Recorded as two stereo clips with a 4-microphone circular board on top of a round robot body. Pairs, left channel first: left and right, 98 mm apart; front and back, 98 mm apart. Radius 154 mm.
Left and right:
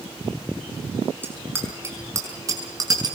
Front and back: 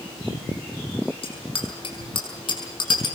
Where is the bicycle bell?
20° right, 5.5 m; by 3.2 s 40° right, 6.5 m.